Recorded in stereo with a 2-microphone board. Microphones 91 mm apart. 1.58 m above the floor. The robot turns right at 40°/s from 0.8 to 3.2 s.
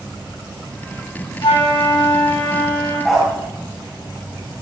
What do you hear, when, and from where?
1.4 s a flute: 65° left, 3 m; by 3.0 s 125° left, 3 m
3.0 s a dog barking: centre (ahead or behind), 2.5 m; by 3.3 s 5° right (ahead or behind), 2.5 m